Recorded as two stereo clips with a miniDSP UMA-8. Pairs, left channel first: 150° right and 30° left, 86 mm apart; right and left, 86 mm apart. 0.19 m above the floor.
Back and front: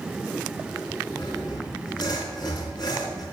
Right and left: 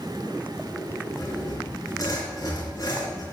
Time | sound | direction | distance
1.2 | sawing | 130° right | 3.5 m